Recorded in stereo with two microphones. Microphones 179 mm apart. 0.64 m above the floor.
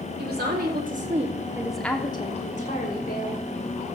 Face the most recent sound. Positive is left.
turn(degrees=65)  # may be behind; listen again after turning